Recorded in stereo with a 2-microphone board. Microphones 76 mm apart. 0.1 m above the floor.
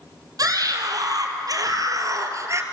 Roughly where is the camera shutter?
No camera shutter in this recording.